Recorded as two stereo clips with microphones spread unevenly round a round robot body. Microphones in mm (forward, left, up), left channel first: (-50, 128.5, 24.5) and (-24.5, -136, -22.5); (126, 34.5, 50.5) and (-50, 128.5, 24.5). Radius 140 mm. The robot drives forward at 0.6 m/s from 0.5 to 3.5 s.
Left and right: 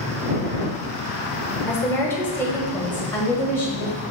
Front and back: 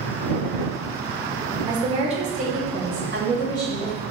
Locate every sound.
1.7 s a woman speaking: 175° right, 0.9 m; by 4.0 s straight behind, 1.8 m